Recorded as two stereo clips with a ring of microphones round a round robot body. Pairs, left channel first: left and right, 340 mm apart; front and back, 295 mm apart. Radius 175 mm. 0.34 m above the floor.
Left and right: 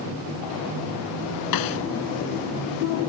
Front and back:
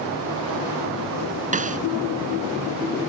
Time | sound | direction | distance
1.5 | a snare drum | 115° left | ?